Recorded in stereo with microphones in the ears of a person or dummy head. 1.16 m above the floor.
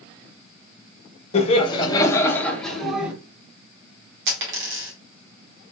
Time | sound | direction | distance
1.3 | laughter | 40° left (ahead or behind) | 1.0 m
4.3 | a dropped coin | 70° right (ahead or behind) | 1.3 m